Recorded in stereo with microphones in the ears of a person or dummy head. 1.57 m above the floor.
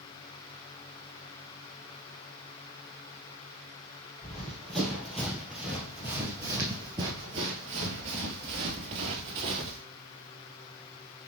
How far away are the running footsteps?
About 2.5 m.